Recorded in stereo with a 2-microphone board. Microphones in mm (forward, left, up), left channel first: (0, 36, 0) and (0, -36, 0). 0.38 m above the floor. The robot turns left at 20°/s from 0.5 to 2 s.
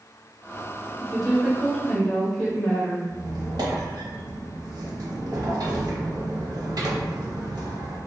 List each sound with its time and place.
1.0 s a woman speaking: centre (ahead or behind), 1.1 m; by 3.0 s 10° left (ahead or behind), 1.1 m
3.1 s a squeak: 65° right (ahead or behind), 0.7 m